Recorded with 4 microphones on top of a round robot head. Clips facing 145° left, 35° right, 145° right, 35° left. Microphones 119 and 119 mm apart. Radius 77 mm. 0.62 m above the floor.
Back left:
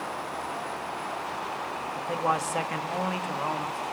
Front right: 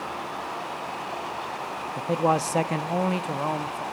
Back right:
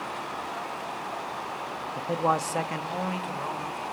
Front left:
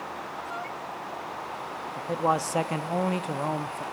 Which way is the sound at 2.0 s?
70° right.